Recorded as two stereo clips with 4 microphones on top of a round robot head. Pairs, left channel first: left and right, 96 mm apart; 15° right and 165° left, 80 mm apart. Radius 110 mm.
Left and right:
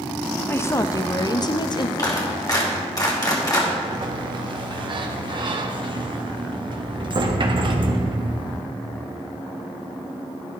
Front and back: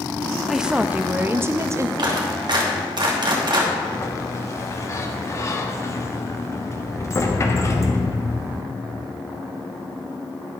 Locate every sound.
0.5 s a woman speaking: 80° left, 0.6 m; by 1.9 s 120° left, 1.1 m
2.0 s a clap: 140° left, 2.5 m
3.8 s a sliding door: 65° right, 1.2 m